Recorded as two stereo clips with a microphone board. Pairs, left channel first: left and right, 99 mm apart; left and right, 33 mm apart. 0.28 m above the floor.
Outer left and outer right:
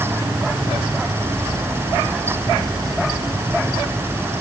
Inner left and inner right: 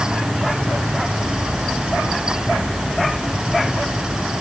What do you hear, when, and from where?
Only background noise.